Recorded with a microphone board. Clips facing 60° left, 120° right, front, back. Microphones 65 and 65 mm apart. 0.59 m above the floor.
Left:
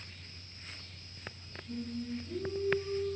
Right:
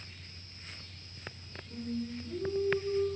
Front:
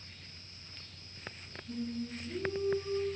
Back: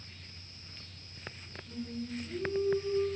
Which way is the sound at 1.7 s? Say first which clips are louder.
Right 1 dB, front 1 dB; 140° left.